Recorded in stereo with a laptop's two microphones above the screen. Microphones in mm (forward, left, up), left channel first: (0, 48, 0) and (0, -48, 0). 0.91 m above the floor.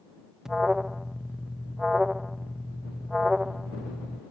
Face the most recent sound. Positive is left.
turn(degrees=-5)  # may be behind; listen again after turning